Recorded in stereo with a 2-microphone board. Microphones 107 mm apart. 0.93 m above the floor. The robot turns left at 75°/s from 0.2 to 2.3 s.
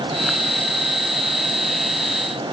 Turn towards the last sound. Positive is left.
No sound to turn to.